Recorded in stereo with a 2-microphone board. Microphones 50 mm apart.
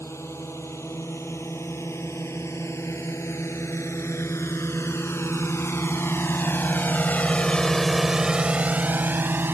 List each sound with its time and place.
0.0 s a drone: 85° left; by 9.5 s 50° right (ahead or behind)